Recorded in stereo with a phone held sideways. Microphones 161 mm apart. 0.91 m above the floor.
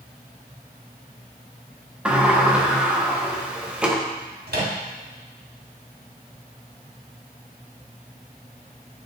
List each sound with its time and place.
2.0 s a sliding door: 5° right (ahead or behind), 0.8 m
4.5 s a microwave: 75° right (ahead or behind), 1.7 m